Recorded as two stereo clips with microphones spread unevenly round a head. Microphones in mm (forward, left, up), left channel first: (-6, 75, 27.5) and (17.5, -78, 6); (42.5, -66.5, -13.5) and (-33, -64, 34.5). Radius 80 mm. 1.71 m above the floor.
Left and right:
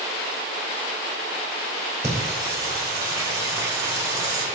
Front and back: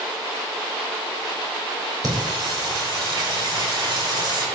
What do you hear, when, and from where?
2.0 s singing: 150° right, 4 m